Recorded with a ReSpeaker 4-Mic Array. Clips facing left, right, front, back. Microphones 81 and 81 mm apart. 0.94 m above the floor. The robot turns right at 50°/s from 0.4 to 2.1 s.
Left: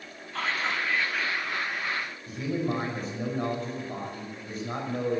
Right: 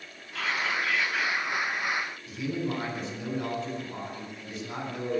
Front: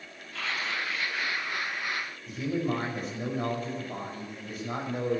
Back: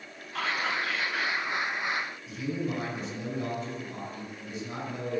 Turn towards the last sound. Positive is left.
turn(degrees=40)